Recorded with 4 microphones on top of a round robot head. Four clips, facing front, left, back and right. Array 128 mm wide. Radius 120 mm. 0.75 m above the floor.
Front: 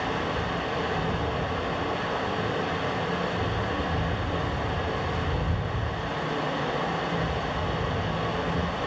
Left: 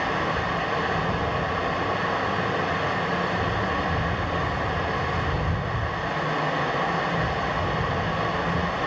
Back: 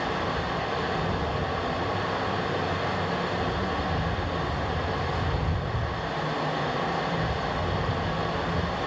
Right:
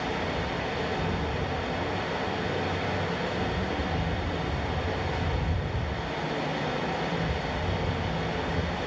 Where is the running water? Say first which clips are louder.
Left 5 dB, even; 100° left, 3 m.